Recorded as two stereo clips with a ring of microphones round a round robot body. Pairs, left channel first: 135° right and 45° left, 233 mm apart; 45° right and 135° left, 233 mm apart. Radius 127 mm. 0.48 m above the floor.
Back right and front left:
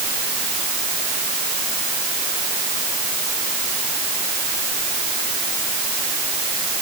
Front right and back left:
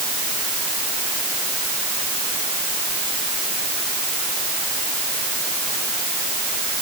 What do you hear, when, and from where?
Only background noise.